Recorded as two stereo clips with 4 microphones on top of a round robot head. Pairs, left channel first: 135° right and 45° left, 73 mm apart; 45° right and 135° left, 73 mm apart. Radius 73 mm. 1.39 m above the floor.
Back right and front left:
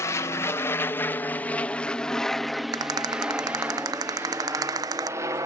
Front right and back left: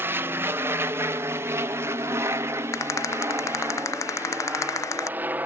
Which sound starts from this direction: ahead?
A rattle, at 2.7 s.